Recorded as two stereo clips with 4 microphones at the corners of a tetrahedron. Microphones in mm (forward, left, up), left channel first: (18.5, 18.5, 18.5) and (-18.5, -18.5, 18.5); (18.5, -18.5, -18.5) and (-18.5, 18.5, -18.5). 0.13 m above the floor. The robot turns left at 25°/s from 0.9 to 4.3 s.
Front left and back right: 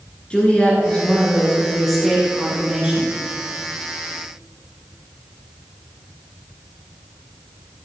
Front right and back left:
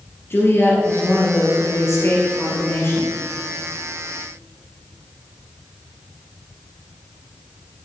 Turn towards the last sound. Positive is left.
turn(degrees=-105)